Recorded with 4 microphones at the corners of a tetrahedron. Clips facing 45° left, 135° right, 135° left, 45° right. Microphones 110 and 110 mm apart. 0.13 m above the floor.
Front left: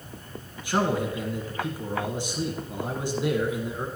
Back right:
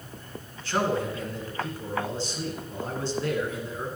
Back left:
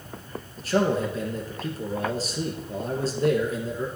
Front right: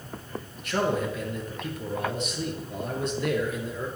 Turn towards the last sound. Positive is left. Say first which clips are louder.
# front left 1 dB, back left 3 dB
turn(degrees=115)